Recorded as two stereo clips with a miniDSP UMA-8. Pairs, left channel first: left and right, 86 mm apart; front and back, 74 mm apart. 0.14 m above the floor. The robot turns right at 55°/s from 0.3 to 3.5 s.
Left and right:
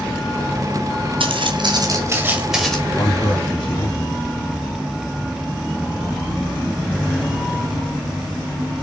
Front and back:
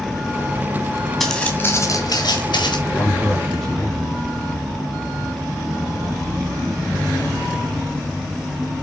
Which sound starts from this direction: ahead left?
A man speaking, at 2.9 s.